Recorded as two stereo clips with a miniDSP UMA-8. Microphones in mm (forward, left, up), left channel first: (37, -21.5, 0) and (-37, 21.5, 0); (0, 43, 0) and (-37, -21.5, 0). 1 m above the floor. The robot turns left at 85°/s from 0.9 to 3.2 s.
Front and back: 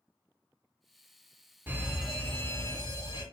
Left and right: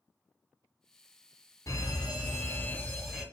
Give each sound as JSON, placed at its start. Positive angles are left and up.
{"t": 1.7, "sound": "a fire alarm", "azimuth_deg": 95, "distance_m": 2.5}